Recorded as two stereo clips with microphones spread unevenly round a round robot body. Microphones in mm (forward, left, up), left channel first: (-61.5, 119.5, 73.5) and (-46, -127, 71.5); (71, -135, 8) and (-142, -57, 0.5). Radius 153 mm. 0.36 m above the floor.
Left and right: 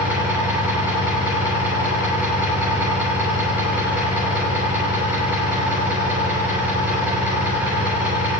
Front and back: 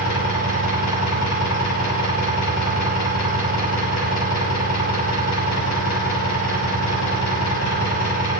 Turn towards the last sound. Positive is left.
turn(degrees=-5)